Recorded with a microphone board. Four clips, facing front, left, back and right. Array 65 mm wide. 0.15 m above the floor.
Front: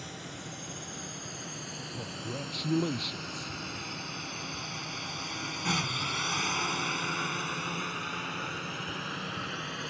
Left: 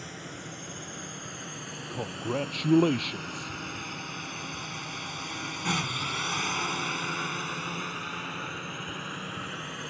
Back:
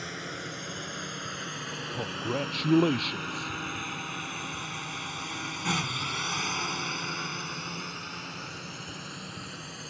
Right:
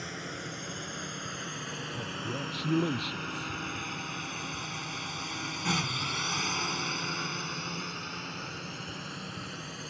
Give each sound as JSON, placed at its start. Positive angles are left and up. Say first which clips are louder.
{"t": 0.0, "sound": "a drone", "louder": "right 2 dB, back 5 dB", "azimuth_deg": -155}
{"t": 1.9, "sound": "a man speaking", "louder": "left 7 dB, back 8 dB", "azimuth_deg": 120}